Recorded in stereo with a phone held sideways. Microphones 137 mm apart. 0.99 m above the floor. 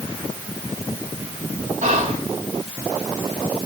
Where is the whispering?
65° right (ahead or behind), 1.0 m.